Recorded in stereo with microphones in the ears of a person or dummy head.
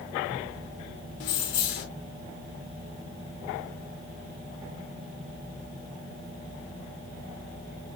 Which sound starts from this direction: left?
Keys jangling, at 1.2 s.